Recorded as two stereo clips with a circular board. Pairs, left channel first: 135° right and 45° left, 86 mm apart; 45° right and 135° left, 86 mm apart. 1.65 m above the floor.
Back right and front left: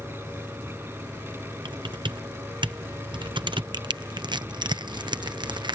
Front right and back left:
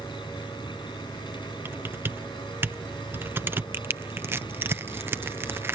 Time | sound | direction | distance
0.0 | an engine running | 20° right | ?
1.6 | typing on a keyboard | 70° left | ?
3.7 | crushing | 70° left | ?